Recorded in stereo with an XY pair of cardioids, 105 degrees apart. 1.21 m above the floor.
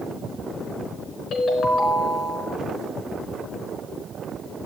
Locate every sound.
1.3 s a ringtone: 65° left, 4.5 m